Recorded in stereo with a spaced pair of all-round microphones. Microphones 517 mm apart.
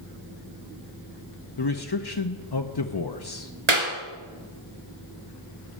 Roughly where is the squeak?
I don't hear a squeak.